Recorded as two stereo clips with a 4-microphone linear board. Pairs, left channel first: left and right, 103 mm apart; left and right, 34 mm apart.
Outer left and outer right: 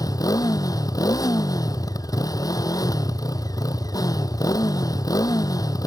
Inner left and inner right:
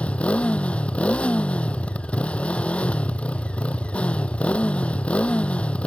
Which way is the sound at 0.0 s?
35° left (ahead or behind).